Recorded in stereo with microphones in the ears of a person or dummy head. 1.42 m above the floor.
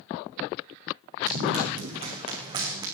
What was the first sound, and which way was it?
Running footsteps, 40° right (ahead or behind).